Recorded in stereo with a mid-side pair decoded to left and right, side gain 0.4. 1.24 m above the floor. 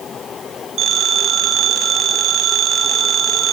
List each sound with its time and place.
0.8 s a phone ringing: 65° right, 7 m